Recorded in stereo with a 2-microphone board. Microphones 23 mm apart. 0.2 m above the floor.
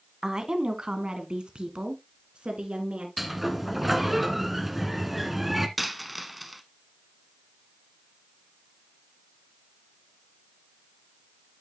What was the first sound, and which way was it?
A woman speaking, 35° right (ahead or behind).